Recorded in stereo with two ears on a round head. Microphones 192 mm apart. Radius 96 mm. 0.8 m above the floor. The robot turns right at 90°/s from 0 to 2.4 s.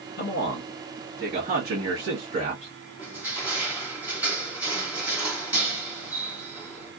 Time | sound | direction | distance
0.2 | a man speaking | 110° left | 1.8 m
3.0 | crushing | 10° right (ahead or behind) | 1.9 m